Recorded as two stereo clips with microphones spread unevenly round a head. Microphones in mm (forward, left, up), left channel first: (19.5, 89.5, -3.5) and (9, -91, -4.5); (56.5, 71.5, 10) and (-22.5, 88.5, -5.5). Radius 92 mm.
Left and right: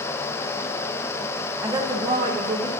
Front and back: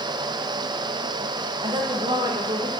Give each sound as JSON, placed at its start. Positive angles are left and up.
{"t": 1.6, "sound": "a woman speaking", "azimuth_deg": -170, "distance_m": 0.7}